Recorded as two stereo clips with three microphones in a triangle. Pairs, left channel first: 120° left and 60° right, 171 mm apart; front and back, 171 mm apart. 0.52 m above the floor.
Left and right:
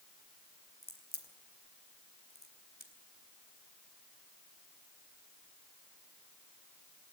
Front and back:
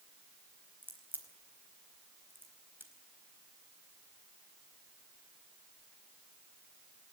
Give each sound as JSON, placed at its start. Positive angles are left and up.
{"t": 0.8, "sound": "a crack", "azimuth_deg": 100, "distance_m": 4.0}